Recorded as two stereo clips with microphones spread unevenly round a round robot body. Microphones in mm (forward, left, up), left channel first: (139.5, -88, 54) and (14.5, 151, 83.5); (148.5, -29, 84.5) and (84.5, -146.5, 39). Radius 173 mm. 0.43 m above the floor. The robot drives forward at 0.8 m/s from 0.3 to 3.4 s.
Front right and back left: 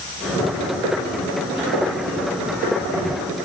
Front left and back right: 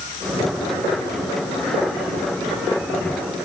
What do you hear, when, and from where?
Only background noise.